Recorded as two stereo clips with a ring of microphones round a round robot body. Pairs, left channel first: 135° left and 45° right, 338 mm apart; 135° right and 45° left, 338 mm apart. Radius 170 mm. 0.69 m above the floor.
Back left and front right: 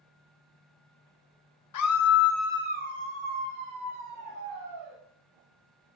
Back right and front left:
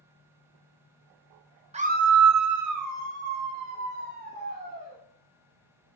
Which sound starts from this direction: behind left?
A scream, at 1.7 s.